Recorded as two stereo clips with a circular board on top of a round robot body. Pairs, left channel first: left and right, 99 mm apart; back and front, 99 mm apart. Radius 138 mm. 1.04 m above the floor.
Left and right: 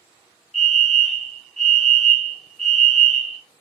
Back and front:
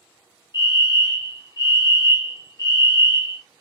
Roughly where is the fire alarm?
Behind.